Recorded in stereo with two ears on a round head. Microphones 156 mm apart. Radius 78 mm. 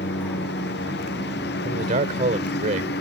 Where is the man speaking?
45° right (ahead or behind).